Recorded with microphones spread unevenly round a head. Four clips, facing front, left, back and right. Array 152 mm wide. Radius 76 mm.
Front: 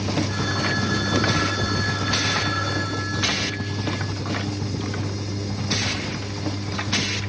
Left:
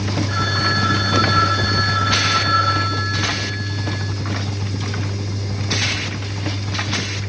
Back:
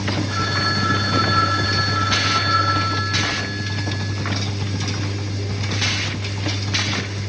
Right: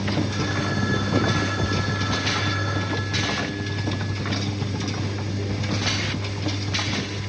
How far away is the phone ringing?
About 6.5 m.